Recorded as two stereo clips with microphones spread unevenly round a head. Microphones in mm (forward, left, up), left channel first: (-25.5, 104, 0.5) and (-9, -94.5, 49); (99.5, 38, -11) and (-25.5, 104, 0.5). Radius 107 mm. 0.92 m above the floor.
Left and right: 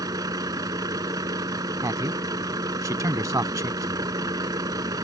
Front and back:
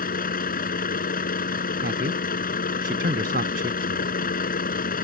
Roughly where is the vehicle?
Ahead.